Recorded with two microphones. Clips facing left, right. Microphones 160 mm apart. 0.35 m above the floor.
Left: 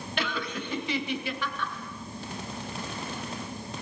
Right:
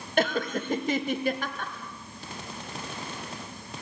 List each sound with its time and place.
0.2 s laughter: 45° right (ahead or behind), 2.0 m